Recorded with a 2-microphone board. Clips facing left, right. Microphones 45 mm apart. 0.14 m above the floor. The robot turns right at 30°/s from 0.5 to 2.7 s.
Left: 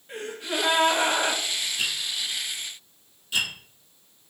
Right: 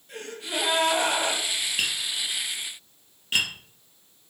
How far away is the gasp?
About 2.5 m.